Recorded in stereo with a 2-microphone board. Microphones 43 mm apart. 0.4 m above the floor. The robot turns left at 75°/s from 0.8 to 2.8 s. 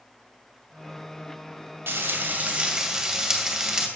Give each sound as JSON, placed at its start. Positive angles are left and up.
{"t": 1.9, "sound": "frying", "azimuth_deg": -90, "distance_m": 2.0}